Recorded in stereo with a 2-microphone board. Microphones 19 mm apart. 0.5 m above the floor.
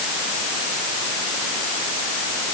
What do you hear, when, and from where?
Only background noise.